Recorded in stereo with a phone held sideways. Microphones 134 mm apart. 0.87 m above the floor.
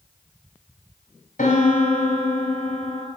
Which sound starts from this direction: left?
A piano, at 1.4 s.